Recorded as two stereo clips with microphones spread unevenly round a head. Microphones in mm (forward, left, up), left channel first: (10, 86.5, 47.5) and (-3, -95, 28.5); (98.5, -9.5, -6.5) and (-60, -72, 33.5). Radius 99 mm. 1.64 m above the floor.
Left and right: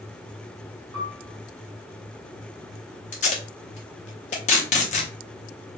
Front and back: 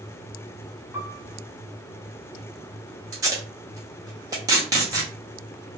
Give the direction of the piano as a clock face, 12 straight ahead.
3 o'clock.